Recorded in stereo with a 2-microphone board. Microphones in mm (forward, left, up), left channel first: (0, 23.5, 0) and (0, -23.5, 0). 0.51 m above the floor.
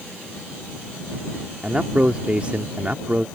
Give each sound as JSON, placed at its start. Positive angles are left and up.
{"t": 1.6, "sound": "a man speaking", "side_deg": -30}